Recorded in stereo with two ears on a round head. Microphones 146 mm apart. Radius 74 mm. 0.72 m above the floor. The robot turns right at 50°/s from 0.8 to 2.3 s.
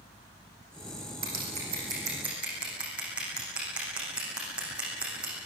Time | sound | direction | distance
1.2 | scissors | 60° right (ahead or behind) | 9.5 m